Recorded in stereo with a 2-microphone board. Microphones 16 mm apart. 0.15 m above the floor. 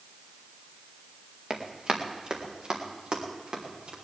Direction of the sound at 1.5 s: 40° right (ahead or behind).